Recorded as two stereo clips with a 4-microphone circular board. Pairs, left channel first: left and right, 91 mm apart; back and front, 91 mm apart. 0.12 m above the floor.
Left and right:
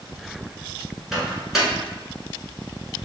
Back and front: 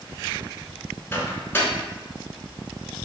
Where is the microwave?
175° right, 1.2 m.